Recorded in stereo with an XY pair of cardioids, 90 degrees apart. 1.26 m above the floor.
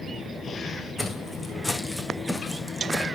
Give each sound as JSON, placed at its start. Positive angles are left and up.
{"t": 1.0, "sound": "footsteps", "azimuth_deg": 5, "distance_m": 4.5}